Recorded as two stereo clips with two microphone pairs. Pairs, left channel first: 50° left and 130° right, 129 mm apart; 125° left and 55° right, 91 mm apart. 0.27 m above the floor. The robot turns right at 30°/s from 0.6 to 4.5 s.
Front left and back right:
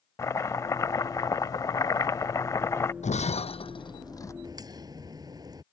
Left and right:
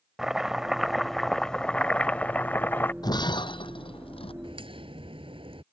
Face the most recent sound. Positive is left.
turn(degrees=-70)